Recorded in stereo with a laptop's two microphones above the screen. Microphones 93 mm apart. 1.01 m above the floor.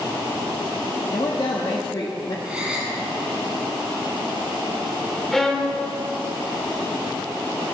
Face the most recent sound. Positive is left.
turn(degrees=5)  # may be behind; listen again after turning